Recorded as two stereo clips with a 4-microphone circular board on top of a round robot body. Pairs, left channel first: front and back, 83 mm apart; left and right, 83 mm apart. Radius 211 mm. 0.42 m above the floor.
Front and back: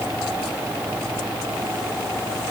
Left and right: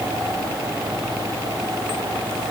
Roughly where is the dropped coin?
I don't hear a dropped coin.